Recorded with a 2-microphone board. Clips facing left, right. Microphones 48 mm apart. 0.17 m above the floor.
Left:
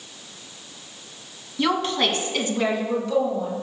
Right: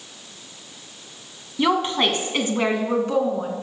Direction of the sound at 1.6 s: 15° right (ahead or behind).